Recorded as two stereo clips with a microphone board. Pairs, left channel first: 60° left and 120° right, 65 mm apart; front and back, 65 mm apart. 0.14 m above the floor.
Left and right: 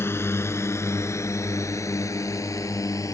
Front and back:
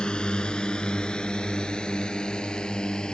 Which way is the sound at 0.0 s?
70° left.